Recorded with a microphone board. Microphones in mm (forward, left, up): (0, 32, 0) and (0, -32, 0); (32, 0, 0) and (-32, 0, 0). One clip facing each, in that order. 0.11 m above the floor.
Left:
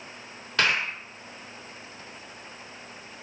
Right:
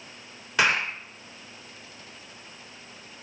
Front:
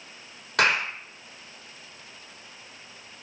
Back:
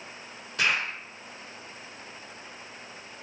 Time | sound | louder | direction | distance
0.6 | a clap | right 2 dB, front 4 dB | 15° right | 3.5 m